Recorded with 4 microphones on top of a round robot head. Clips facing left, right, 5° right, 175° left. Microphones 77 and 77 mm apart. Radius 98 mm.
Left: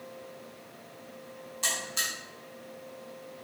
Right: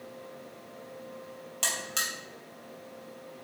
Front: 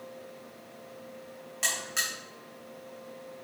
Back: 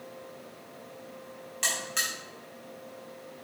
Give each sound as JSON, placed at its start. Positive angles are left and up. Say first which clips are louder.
{"t": 1.6, "sound": "a buzzer", "louder": "even, back 1 dB", "azimuth_deg": -95, "distance_m": 3.0}